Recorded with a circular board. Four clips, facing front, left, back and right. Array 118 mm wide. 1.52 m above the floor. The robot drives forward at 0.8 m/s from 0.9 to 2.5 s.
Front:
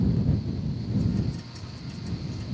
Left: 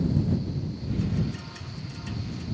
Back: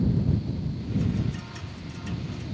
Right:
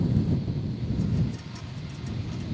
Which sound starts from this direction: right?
Dripping, at 1.5 s.